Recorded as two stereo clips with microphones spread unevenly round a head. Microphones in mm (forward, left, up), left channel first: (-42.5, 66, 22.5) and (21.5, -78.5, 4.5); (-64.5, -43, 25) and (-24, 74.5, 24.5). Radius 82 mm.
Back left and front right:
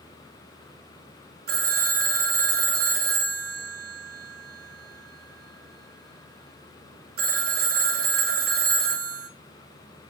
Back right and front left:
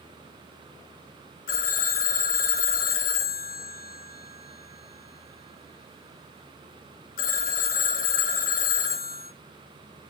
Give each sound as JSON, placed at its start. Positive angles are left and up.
{"t": 1.5, "sound": "a phone ringing", "azimuth_deg": -95, "distance_m": 0.9}